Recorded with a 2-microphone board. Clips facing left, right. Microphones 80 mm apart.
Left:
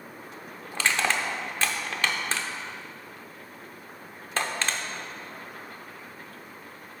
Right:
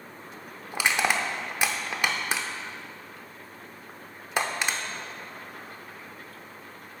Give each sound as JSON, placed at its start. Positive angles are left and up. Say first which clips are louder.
{"t": 0.7, "sound": "crushing", "louder": "right 1 dB", "side_deg": -15, "distance_m": 0.7}